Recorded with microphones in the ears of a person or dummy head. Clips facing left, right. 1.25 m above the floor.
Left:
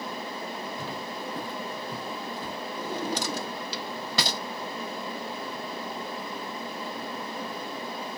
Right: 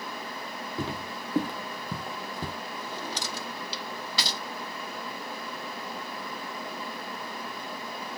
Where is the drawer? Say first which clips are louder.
Left 9 dB; 50° left (ahead or behind), 1.2 m.